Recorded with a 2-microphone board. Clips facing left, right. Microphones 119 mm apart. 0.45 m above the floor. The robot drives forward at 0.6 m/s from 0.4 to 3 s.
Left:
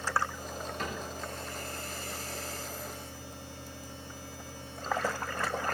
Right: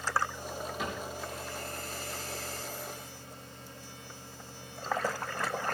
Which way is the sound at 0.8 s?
5° right (ahead or behind).